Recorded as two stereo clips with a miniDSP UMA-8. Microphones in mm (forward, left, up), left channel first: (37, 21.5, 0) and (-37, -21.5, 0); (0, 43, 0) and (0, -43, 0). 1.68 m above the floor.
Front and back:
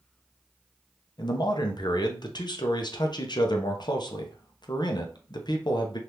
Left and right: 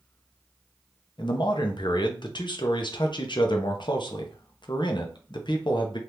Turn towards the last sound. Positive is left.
turn(degrees=65)